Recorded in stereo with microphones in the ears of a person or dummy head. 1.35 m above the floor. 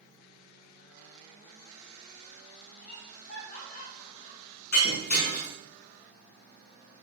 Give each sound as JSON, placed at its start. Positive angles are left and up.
{"t": 2.8, "sound": "laughter", "side_deg": 50, "distance_m": 5.0}
{"t": 4.7, "sound": "breaking glass", "side_deg": 55, "distance_m": 6.0}